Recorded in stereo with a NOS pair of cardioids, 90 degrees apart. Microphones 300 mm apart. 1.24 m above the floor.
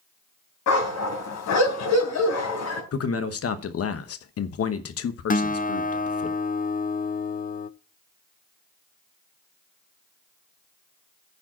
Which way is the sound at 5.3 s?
30° left.